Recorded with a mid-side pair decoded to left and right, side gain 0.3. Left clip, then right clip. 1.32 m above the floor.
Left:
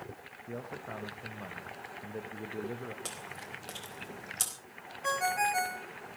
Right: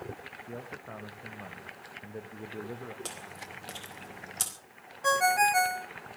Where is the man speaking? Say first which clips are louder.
Left 4 dB; 5° left, 1.5 m.